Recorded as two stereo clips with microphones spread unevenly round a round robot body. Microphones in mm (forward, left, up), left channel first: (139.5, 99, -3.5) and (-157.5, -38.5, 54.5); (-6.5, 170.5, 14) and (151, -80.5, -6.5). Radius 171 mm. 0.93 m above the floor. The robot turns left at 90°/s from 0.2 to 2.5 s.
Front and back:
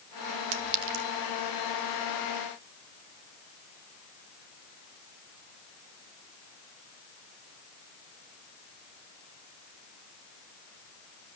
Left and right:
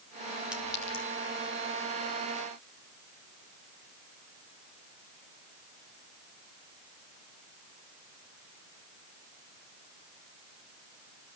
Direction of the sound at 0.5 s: 145° right.